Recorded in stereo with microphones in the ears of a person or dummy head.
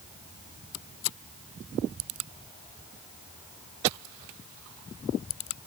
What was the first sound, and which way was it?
Only background noise.